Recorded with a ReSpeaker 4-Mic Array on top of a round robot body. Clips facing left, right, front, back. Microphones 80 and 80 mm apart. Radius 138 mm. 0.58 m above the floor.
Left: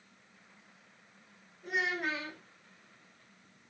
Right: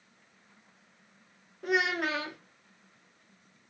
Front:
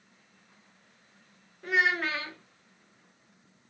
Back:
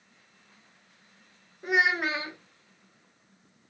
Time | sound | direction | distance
1.6 | a child speaking | 105° right | 0.7 m